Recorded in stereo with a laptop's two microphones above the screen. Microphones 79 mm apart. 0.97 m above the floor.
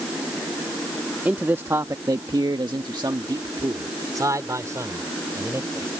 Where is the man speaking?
20° right (ahead or behind); by 5.9 s 35° right (ahead or behind).